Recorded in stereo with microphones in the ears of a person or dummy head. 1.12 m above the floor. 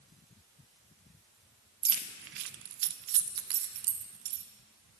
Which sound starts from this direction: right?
Keys jangling, at 1.8 s.